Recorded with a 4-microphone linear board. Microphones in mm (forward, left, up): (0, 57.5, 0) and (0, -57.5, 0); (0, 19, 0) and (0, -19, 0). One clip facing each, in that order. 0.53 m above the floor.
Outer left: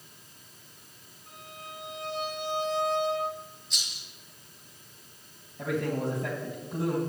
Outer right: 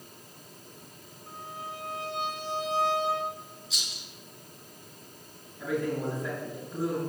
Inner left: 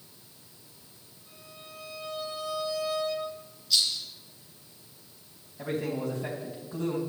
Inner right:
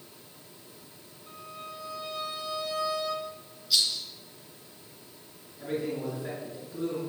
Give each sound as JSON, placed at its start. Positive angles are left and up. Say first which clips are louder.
{"t": 1.3, "sound": "a violin", "louder": "outer right 5 dB, inner right 7 dB", "side_deg": -35, "distance_m": 6.0}
{"t": 3.7, "sound": "a rattle", "louder": "outer right 2 dB, even", "side_deg": -5, "distance_m": 4.5}
{"t": 5.6, "sound": "a man speaking", "louder": "even, inner left 1 dB", "side_deg": 70, "distance_m": 4.0}